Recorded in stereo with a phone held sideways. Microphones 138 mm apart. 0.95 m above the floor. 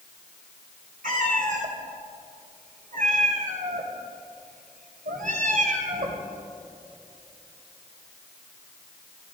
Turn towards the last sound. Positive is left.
turn(degrees=-70)  # may be behind; listen again after turning